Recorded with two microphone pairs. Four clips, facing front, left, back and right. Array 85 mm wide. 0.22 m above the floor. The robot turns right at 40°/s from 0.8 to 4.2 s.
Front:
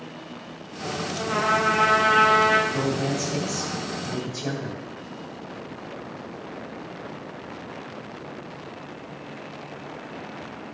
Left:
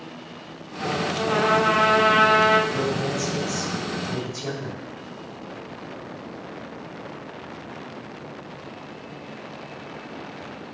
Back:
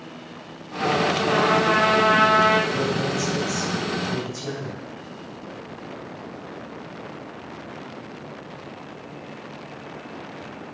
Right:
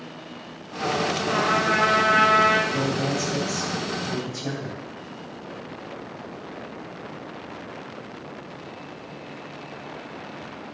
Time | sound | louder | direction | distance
1.1 | a trumpet | left 6 dB, front 1 dB | 85° left | 1.8 m
2.7 | a man speaking | even, back 1 dB | 80° right | 1.5 m